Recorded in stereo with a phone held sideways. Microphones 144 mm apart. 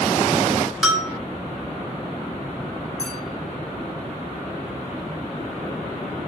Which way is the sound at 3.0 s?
25° left (ahead or behind).